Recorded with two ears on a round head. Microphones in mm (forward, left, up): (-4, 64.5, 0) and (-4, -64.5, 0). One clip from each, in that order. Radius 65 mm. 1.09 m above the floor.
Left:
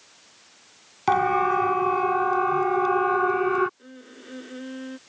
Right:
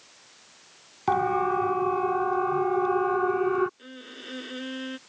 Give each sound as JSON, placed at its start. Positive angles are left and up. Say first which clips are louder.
{"t": 1.1, "sound": "a siren", "louder": "left 3 dB", "side_deg": 50}
{"t": 3.8, "sound": "a violin", "louder": "right 3 dB", "side_deg": -70}